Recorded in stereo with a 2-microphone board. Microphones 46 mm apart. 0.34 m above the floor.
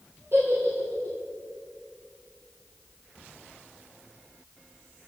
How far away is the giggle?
About 4.5 m.